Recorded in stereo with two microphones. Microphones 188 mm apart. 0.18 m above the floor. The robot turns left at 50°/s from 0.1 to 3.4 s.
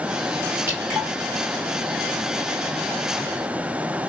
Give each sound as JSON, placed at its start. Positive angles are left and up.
{"t": 0.7, "sound": "dripping", "side_deg": -15, "distance_m": 3.0}